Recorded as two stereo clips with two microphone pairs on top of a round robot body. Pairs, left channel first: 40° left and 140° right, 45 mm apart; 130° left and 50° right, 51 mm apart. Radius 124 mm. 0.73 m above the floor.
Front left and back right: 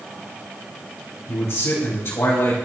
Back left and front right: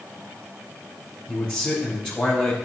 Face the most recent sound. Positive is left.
turn(degrees=60)